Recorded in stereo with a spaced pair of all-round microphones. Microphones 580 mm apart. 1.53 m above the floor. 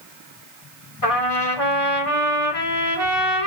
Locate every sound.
1.0 s a trumpet: 65° left (ahead or behind), 2.5 m